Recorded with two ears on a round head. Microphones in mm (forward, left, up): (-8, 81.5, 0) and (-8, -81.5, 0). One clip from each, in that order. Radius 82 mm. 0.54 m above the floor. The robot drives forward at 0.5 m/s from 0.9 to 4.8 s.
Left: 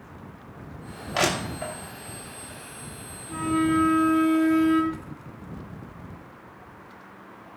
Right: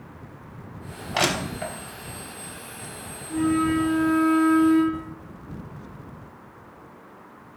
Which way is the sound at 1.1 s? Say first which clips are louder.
Right 1 dB; 5° left (ahead or behind).